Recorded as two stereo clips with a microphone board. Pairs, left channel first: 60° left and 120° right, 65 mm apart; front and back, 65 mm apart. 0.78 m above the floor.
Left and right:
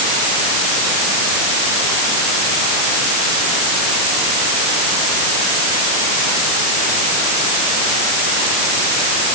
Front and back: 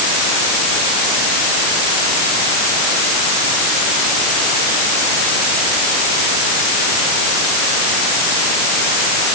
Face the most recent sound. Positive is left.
No sound to turn to.